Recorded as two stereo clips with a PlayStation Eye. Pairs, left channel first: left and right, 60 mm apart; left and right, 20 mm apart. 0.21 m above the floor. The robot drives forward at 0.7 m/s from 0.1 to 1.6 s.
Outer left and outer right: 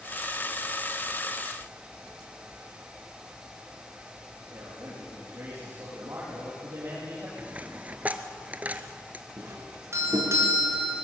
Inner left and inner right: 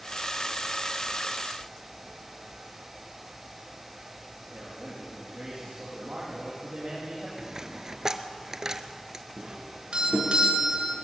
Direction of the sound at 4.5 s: 50° right (ahead or behind).